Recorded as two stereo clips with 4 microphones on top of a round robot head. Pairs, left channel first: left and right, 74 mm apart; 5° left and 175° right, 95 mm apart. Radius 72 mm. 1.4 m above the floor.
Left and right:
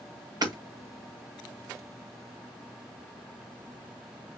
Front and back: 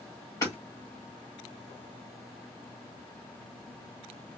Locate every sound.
0.4 s hammering: 60° right, 2.5 m